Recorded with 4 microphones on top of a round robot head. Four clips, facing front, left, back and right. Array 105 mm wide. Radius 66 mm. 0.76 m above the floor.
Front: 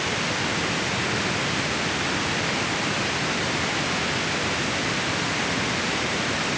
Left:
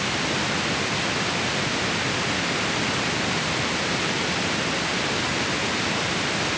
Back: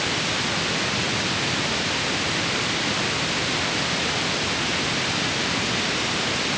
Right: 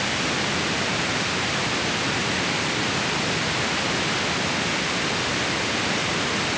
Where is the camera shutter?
I don't hear a camera shutter.